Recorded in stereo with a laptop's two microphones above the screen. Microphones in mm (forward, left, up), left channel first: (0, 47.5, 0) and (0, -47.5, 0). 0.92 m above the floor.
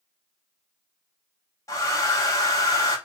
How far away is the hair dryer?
About 0.7 m.